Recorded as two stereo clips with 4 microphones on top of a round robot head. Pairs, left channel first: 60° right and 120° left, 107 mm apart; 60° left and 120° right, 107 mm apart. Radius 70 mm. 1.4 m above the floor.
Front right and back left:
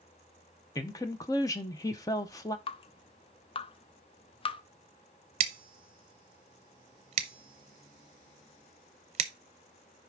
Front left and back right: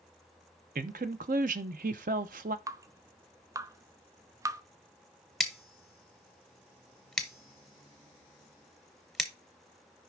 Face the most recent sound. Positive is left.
turn(degrees=150)